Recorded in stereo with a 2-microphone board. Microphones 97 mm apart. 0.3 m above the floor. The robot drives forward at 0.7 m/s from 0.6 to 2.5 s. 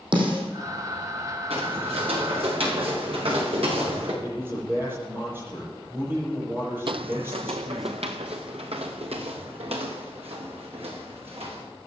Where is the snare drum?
55° right (ahead or behind), 4.5 m.